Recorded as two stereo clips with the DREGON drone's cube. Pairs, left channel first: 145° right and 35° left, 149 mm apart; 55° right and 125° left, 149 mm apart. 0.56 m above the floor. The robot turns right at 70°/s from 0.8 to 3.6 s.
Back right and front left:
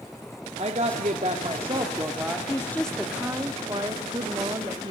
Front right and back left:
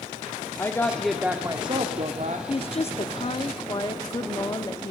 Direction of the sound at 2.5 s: 90° right.